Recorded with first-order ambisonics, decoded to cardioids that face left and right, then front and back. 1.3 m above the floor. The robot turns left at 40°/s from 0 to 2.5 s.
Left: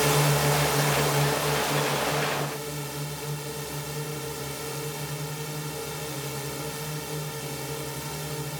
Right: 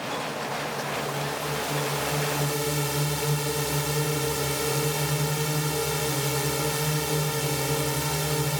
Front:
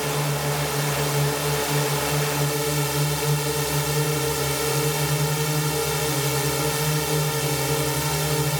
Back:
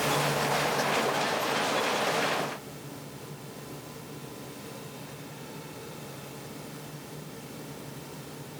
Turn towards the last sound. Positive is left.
turn(degrees=-25)